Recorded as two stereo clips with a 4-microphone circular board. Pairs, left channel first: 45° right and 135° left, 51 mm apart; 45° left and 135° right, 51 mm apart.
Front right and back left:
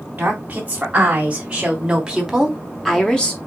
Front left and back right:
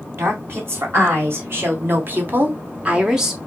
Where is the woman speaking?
165° right, 3 m; by 3.4 s 60° right, 1.0 m.